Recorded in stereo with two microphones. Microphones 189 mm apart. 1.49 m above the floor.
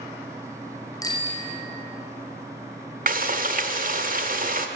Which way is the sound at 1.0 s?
20° left (ahead or behind).